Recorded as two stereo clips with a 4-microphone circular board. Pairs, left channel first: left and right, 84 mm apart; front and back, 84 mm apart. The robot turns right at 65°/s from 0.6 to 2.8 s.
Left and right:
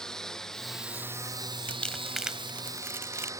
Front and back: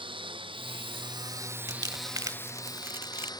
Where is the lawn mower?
175° left; by 3.4 s 40° right.